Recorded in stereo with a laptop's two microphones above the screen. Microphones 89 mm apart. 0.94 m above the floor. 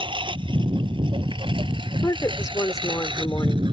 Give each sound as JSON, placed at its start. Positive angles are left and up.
{"t": 0.0, "sound": "a lawn mower", "side_deg": -70}
{"t": 2.0, "sound": "a woman speaking", "side_deg": 35}